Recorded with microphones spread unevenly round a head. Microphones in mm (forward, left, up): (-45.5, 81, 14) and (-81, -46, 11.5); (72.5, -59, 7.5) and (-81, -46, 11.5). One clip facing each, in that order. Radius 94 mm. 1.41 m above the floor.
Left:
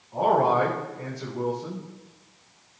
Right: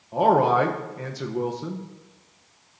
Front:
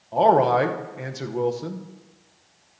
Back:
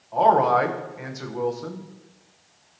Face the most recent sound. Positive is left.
turn(degrees=-65)